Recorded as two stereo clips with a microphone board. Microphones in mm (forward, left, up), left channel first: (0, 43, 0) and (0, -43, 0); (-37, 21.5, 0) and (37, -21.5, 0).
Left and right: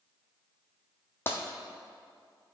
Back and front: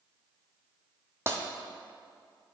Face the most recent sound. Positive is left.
turn(degrees=30)